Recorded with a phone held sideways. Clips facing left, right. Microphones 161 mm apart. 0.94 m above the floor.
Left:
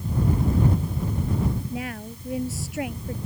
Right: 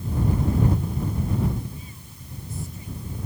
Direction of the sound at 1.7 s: 80° left.